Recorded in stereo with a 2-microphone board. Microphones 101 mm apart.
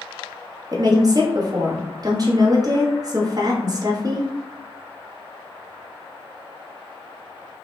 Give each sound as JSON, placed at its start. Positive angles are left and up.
{"t": 0.7, "sound": "a woman speaking", "side_deg": -40, "distance_m": 1.1}